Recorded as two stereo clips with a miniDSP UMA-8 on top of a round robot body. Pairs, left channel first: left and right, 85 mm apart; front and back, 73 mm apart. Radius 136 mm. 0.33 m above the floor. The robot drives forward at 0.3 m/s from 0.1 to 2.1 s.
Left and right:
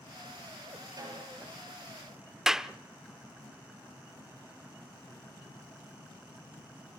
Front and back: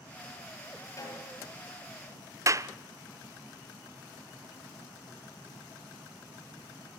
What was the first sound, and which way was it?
A snare drum, 45° right.